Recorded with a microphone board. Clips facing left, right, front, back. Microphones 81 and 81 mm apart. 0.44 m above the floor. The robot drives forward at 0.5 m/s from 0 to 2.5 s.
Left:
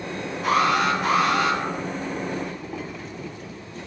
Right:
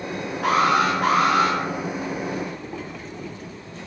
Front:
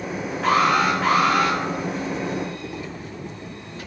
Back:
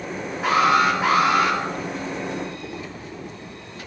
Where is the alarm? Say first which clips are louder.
Right 1 dB, back 1 dB; 100° right, 4.5 m; by 1.6 s 105° right, 4.5 m.